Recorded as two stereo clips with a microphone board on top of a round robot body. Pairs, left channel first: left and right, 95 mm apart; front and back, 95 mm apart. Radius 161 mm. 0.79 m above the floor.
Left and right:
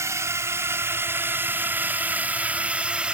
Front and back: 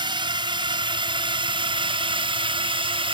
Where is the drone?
150° right; by 3.1 s 170° right.